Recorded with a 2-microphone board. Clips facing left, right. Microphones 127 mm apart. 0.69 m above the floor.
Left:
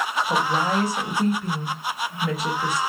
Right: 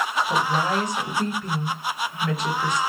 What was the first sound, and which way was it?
A woman speaking, 10° left (ahead or behind).